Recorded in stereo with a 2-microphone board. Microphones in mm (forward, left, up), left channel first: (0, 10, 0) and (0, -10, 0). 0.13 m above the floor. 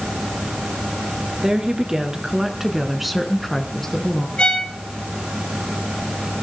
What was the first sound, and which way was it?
A woman speaking, 45° right (ahead or behind).